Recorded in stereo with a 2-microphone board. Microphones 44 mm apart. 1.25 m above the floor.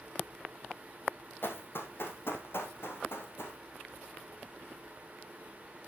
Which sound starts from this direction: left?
Running footsteps, at 1.4 s.